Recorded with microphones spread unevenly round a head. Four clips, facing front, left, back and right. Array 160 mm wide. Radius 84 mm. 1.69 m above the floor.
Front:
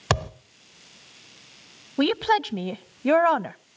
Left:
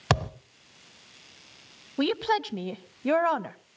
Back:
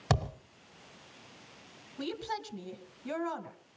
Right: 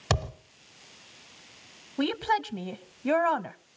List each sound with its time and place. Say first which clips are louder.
0.1 s a thud: left 3 dB, front 6 dB; 45° left, 1.1 m
2.0 s a woman speaking: left 1 dB, front 16 dB; 10° left, 0.7 m